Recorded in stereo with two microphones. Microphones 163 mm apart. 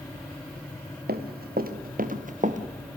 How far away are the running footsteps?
About 2 m.